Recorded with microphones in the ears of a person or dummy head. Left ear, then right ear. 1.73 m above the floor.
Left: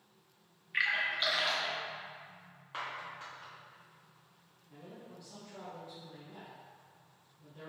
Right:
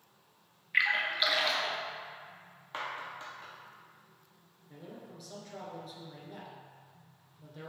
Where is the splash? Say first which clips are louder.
Right 3 dB; 10° right (ahead or behind), 0.6 m.